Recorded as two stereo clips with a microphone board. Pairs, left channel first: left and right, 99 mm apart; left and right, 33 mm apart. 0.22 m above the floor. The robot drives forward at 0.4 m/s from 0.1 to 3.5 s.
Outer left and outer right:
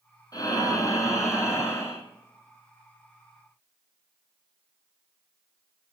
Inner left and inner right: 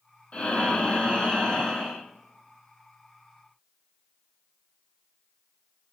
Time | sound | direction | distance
0.3 | breathing | 40° left (ahead or behind) | 1.2 m